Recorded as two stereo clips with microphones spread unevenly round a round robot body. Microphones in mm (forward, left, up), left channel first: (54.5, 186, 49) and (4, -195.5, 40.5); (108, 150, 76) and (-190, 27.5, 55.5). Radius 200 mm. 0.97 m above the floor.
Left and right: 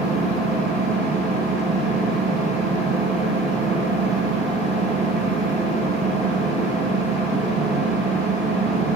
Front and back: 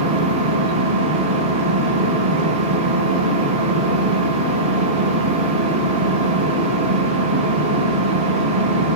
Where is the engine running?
170° left, 5 m.